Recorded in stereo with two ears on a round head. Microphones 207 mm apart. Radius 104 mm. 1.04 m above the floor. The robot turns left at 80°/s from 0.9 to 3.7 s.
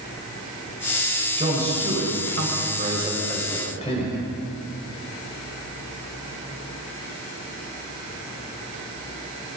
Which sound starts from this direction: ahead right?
A man speaking, at 1.4 s.